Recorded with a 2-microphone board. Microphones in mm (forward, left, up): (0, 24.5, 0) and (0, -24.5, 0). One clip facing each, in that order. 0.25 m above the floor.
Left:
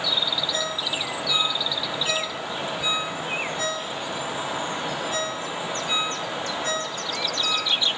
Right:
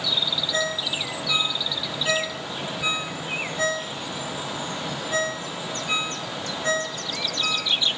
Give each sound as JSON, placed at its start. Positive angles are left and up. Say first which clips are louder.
{"t": 0.5, "sound": "a ringtone", "louder": "right 1 dB", "side_deg": -30, "distance_m": 2.5}